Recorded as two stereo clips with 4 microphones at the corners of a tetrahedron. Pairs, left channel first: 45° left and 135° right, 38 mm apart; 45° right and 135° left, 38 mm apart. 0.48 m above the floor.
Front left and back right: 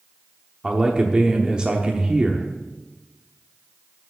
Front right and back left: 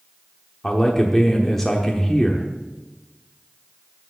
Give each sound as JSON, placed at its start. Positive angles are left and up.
{"t": 0.6, "sound": "a man speaking", "azimuth_deg": -115, "distance_m": 0.9}